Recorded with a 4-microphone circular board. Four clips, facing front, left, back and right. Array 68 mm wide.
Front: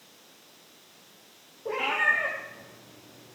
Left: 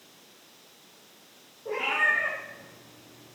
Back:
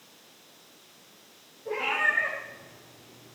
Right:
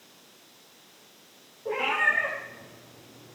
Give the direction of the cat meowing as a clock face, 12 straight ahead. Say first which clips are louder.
Even, front 1 dB; 1 o'clock.